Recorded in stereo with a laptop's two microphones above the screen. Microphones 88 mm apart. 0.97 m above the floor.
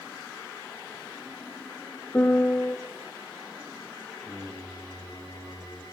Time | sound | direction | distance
2.1 | a piano | 20° left (ahead or behind) | 0.6 m
4.2 | singing | centre (ahead or behind) | 1.4 m